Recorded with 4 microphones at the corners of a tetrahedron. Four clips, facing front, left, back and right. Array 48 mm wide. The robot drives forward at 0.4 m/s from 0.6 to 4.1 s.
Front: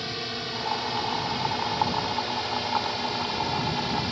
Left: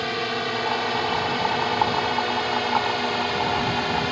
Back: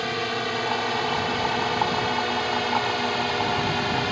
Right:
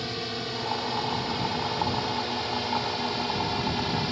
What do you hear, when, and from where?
0.0 s a drone: 130° left; by 4.1 s 135° left